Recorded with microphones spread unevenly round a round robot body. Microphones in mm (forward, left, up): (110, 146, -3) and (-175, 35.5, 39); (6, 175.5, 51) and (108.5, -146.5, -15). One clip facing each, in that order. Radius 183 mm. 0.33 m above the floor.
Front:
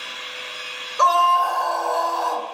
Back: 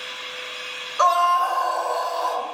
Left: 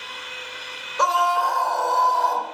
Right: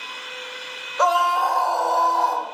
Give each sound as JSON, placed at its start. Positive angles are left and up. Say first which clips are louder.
{"t": 1.0, "sound": "a scream", "louder": "front 1 dB, right 2 dB", "azimuth_deg": 50, "distance_m": 1.4}